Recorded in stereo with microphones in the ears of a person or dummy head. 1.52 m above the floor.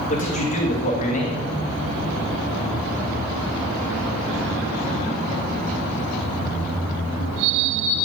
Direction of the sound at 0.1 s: 40° left (ahead or behind).